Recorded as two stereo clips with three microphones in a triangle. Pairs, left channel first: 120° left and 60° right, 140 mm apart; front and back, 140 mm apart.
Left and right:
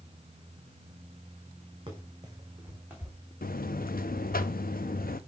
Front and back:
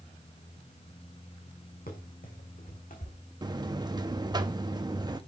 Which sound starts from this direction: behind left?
A buzzer, at 3.4 s.